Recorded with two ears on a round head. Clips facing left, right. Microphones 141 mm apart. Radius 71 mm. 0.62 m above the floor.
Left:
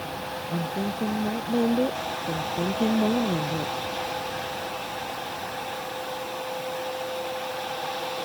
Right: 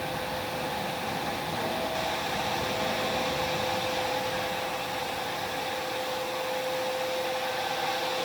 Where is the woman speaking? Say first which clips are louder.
Left 3 dB; 80° left.